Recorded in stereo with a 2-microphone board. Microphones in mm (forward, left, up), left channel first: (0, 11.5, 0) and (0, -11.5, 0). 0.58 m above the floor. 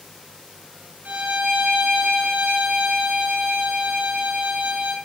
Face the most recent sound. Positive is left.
turn(degrees=-65)  # may be behind; listen again after turning